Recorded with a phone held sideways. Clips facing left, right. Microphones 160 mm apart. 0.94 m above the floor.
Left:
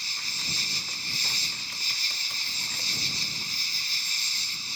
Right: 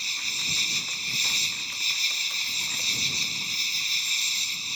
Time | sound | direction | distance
0.0 | an insect | 20° right (ahead or behind) | ?